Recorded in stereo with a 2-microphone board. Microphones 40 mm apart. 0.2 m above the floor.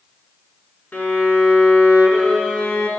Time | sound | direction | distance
0.9 | a violin | 45° left (ahead or behind) | 1.2 m